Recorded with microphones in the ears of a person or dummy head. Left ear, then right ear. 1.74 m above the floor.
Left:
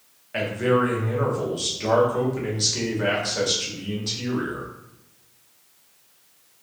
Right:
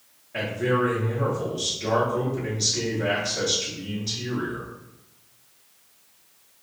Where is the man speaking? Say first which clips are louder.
Left 3 dB; 45° left (ahead or behind), 0.8 m.